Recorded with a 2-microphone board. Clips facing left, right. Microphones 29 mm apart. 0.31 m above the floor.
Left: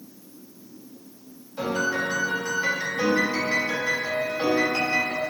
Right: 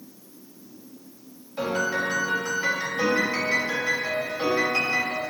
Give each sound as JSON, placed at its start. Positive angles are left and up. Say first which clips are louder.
{"t": 1.6, "sound": "a piano", "louder": "even", "side_deg": -35, "distance_m": 1.5}